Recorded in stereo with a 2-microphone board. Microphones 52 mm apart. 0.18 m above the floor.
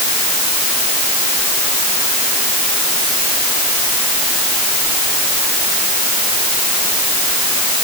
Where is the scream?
No scream in this recording.